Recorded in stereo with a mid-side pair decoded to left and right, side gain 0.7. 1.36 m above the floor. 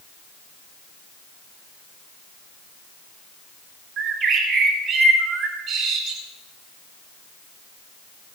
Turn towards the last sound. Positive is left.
turn(degrees=-50)